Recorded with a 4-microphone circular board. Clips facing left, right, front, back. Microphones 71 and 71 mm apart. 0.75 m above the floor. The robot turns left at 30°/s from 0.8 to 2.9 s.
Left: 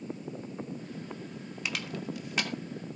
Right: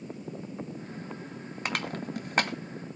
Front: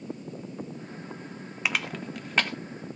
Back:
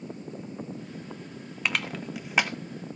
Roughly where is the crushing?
Right.